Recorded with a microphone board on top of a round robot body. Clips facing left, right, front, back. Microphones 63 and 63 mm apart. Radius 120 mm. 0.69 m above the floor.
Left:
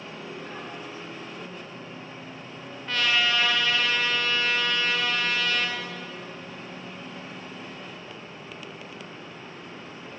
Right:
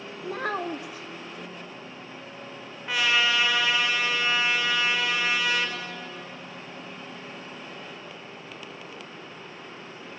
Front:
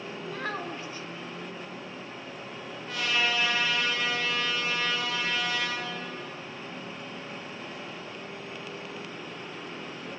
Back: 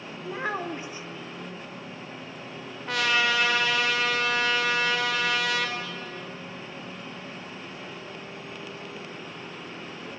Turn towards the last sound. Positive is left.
turn(degrees=-170)